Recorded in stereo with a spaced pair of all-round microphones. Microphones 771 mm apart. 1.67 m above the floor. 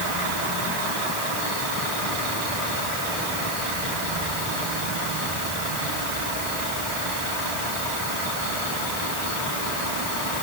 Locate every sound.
Only background noise.